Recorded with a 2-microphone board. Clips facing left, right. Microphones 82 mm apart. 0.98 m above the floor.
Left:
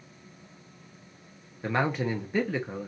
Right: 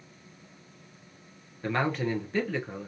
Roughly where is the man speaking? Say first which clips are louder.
Left 1 dB; centre.